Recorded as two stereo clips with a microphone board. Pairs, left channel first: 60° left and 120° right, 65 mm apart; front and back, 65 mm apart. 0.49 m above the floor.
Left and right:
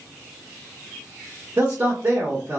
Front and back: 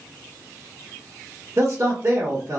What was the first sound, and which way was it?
A man speaking, 165° right.